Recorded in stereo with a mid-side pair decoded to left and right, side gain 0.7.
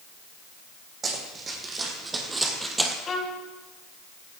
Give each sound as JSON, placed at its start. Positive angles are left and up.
{"t": 1.0, "sound": "running footsteps", "azimuth_deg": -30, "distance_m": 5.5}
{"t": 3.1, "sound": "a violin", "azimuth_deg": 25, "distance_m": 3.0}